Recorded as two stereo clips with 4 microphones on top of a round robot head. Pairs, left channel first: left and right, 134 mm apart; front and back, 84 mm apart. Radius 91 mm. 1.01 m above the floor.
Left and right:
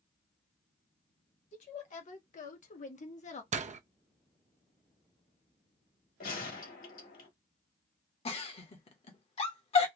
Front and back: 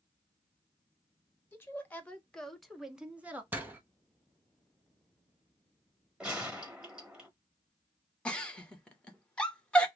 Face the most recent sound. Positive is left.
turn(degrees=70)